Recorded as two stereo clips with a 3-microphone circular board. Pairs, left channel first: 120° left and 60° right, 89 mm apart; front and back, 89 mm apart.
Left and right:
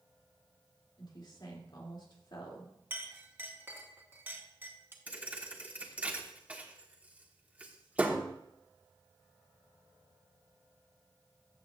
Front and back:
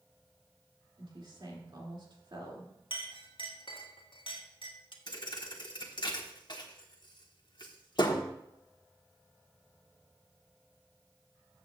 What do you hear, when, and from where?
1.0 s a woman speaking: 150° left, 2.5 m
2.9 s a clink: 5° left, 1.3 m
5.1 s a thud: 10° left, 1.2 m